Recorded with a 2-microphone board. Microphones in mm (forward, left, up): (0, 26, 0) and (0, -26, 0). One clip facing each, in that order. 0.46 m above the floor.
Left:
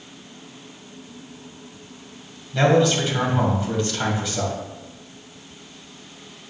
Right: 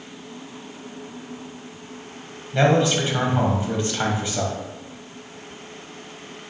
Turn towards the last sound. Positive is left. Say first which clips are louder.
# left 1 dB
turn(degrees=-30)  # may be behind; listen again after turning